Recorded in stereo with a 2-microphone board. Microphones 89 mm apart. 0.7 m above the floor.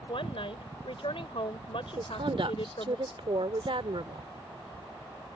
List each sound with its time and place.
0.1 s a woman speaking: 75° left (ahead or behind)
2.0 s a woman speaking: 70° right (ahead or behind)